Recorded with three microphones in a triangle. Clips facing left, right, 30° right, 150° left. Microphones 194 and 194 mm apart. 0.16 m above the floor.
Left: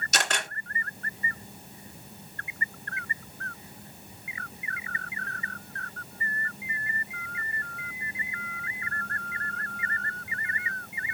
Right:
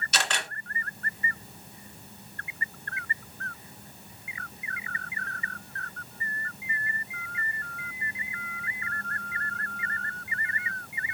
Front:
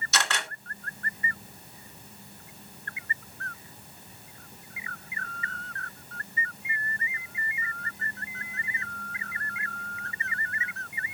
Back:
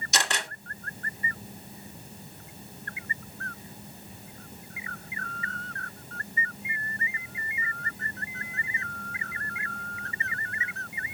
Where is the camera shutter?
85° left, 2 m.